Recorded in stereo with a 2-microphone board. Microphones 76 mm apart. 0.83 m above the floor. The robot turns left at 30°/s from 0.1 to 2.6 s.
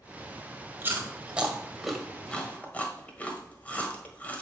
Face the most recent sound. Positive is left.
turn(degrees=20)  # may be behind; listen again after turning